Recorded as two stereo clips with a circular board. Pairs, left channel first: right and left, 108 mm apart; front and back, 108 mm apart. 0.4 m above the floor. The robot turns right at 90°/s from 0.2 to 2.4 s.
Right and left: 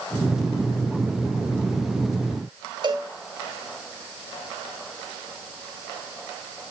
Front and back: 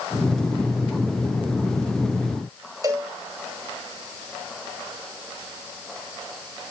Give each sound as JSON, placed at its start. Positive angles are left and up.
{"t": 2.8, "sound": "a cowbell", "azimuth_deg": 125, "distance_m": 1.6}